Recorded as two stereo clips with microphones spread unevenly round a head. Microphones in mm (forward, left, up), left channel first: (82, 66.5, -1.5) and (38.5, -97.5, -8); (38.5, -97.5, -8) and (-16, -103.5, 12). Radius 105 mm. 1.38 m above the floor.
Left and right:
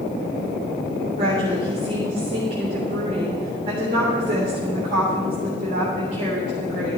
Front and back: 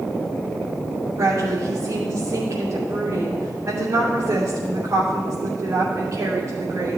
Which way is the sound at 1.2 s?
165° right.